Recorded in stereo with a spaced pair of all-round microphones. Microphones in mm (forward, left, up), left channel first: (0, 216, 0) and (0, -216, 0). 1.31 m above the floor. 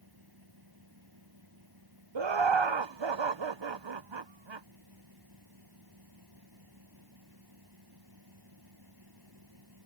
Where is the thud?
I don't hear a thud.